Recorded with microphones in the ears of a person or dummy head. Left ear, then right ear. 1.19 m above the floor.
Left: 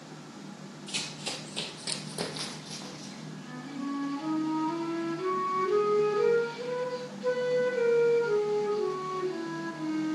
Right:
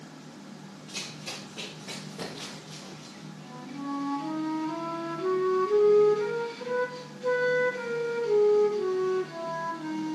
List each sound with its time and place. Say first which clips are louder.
0.9 s running footsteps: left 3 dB; 40° left (ahead or behind), 1.6 m; by 3.3 s 60° left (ahead or behind), 3 m
3.4 s a flute: even; centre (ahead or behind), 1.8 m